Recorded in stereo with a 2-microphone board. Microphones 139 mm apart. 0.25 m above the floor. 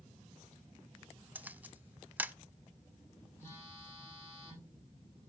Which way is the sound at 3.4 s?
15° left (ahead or behind).